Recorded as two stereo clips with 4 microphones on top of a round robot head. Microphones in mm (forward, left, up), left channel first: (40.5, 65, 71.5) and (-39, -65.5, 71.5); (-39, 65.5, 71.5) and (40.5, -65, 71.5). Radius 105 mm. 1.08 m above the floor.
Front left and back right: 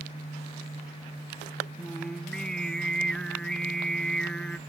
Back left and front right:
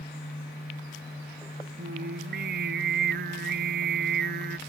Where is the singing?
25° right.